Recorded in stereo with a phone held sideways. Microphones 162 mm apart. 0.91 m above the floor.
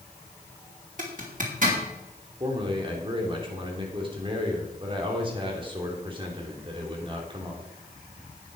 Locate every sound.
1.0 s a zipper: 55° right (ahead or behind), 2.5 m
2.4 s a man speaking: 30° right (ahead or behind), 2.5 m